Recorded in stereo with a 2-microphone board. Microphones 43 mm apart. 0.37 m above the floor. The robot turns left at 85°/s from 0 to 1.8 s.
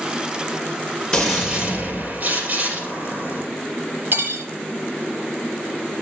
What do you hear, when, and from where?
1.1 s a gunshot: 10° left, 2.5 m; by 3.4 s 45° right, 2.5 m
4.1 s cutlery clinking: 55° right (ahead or behind), 1.0 m